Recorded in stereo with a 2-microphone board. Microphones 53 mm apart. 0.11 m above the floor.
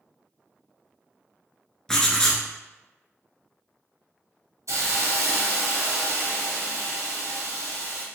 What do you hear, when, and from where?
1.9 s writing: 10° left (ahead or behind), 0.5 m
4.7 s a hiss: 70° right (ahead or behind), 1.4 m